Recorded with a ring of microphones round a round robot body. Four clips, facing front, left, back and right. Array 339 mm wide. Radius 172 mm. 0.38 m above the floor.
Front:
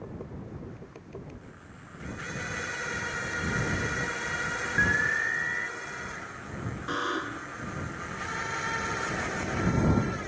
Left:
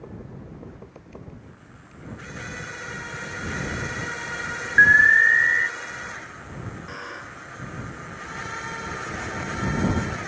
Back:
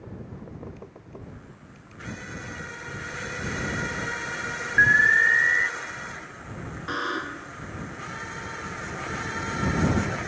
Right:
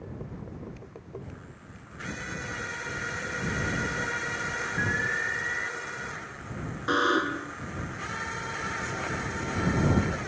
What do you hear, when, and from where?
4.8 s an alarm: 100° left
6.9 s a buzzer: 95° right